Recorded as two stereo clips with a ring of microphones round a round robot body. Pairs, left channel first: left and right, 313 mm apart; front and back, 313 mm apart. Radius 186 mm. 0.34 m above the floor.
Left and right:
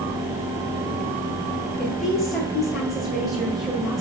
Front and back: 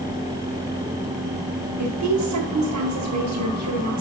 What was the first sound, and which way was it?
A woman speaking, straight behind.